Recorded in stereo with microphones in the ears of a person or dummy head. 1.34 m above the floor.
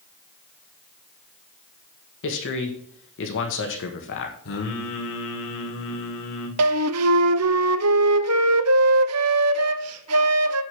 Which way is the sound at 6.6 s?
75° right (ahead or behind).